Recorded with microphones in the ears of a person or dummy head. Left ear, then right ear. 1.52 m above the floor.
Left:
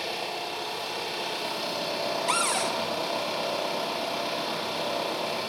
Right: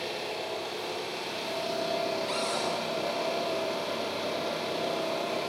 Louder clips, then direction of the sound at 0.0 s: Left 2 dB; 50° left (ahead or behind).